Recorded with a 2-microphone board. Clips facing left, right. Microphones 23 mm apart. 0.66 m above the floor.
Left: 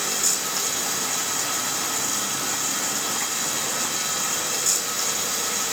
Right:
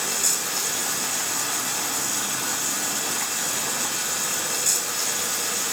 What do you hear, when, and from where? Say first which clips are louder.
0.0 s running water: left 1 dB; 30° left (ahead or behind), 3 m